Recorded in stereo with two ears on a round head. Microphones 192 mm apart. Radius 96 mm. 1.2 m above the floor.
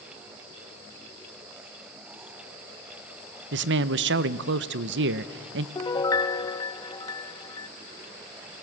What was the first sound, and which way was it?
A man speaking, 55° right (ahead or behind).